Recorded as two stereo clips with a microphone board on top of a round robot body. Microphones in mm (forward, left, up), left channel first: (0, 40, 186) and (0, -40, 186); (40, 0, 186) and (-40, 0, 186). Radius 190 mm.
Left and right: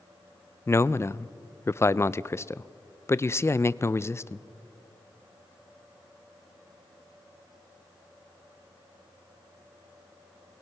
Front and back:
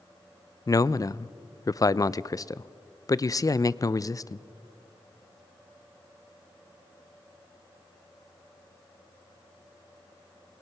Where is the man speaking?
40° left, 0.5 m.